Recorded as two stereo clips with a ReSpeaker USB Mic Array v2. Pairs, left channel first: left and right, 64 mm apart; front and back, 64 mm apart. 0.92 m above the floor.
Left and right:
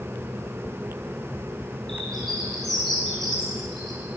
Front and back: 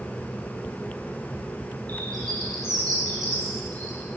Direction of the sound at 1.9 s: 175° left.